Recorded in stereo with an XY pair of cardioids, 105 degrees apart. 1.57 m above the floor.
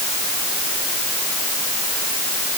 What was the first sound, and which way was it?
Only background noise.